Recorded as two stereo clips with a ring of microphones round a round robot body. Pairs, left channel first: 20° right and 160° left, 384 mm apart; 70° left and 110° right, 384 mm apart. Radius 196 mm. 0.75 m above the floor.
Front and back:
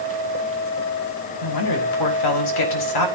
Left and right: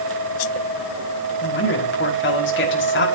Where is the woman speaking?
5° left, 5.5 m.